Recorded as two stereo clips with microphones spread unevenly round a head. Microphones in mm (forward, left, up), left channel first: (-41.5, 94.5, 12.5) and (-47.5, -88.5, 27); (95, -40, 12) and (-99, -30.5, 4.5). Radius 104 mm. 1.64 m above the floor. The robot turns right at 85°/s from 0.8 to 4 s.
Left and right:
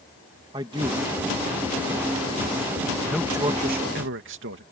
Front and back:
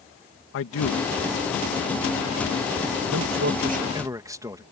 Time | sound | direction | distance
0.5 | a man speaking | 20° right | ?